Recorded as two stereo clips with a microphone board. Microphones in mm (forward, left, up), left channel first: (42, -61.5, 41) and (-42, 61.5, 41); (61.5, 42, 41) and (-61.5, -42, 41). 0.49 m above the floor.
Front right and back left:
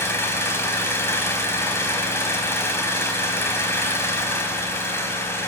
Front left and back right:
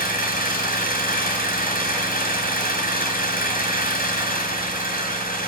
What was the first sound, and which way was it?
An engine running, 20° left.